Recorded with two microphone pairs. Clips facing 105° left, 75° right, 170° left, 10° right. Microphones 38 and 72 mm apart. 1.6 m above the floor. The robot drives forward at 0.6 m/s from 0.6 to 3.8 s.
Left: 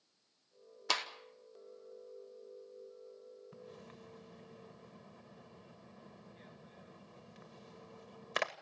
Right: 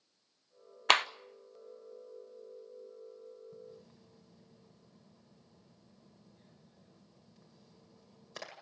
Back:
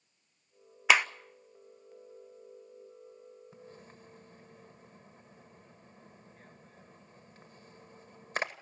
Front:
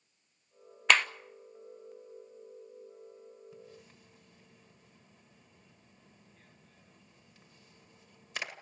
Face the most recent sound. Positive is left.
turn(degrees=120)